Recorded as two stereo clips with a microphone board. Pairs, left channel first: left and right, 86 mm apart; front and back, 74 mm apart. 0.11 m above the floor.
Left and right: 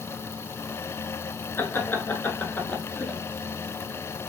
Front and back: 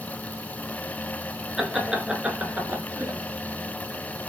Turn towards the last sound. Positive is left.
turn(degrees=160)